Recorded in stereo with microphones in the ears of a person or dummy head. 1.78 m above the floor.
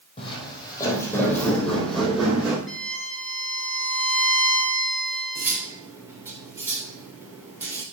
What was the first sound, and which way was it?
Footsteps, 30° left (ahead or behind).